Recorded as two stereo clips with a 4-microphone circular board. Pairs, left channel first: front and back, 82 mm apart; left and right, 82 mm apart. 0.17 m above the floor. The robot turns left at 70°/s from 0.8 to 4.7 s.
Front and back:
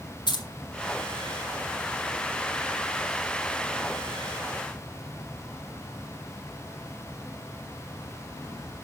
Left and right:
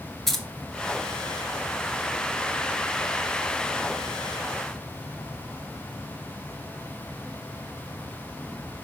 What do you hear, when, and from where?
0.3 s keys jangling: 5° left, 1.8 m